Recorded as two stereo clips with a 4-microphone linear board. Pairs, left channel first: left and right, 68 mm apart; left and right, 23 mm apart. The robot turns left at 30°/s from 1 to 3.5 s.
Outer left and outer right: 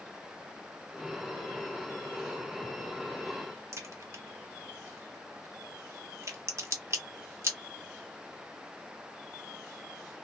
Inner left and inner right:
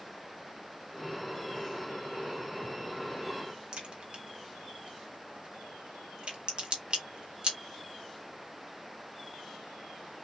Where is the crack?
45° right (ahead or behind), 1.1 m.